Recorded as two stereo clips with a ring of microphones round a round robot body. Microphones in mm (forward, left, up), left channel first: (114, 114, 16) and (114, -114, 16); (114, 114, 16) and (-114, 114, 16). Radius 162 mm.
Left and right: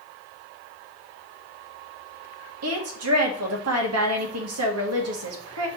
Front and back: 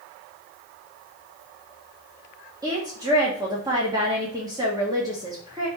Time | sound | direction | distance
2.6 | a woman speaking | 100° right | 1.6 m